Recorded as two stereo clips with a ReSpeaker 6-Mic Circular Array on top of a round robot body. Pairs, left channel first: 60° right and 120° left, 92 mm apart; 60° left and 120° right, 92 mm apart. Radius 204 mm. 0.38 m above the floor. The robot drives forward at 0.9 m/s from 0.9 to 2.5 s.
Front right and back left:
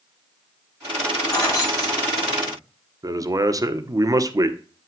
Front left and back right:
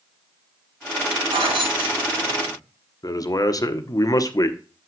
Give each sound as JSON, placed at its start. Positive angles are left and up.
{"t": 1.3, "sound": "keys jangling", "azimuth_deg": -105, "distance_m": 4.0}
{"t": 3.0, "sound": "a man speaking", "azimuth_deg": 90, "distance_m": 1.4}